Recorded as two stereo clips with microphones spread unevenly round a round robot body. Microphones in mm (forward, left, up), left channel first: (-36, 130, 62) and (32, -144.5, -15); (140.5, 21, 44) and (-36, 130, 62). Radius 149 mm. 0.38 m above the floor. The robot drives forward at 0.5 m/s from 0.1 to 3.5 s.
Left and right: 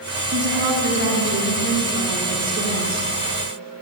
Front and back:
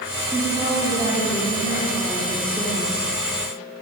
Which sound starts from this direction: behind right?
A woman speaking, at 0.3 s.